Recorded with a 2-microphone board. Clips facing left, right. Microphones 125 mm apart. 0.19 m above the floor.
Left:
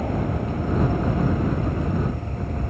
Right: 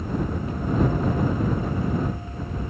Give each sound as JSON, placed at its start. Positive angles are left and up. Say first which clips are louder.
{"t": 0.0, "sound": "an aircraft", "louder": "left 2 dB", "side_deg": 70}